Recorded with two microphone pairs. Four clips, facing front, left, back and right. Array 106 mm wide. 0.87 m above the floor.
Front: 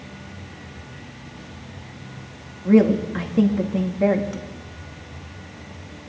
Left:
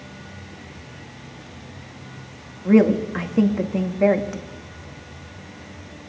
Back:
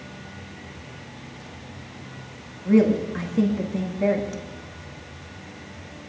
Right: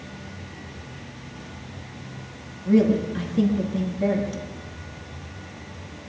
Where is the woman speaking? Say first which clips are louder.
Left 3 dB, front 2 dB; 60° left, 1.7 m.